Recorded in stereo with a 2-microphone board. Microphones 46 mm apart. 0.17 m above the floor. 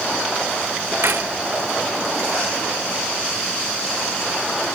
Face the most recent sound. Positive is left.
turn(degrees=-60)  # may be behind; listen again after turning